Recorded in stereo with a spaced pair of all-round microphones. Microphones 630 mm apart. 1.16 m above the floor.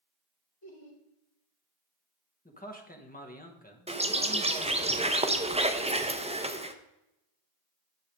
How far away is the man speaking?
About 1.3 m.